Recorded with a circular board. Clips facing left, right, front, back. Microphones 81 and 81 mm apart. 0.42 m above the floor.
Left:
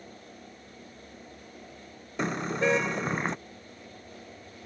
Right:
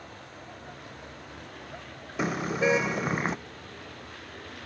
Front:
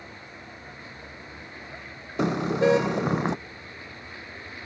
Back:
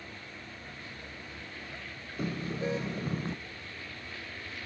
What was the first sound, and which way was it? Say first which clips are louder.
A vehicle: right 2 dB, front 3 dB; 65° right.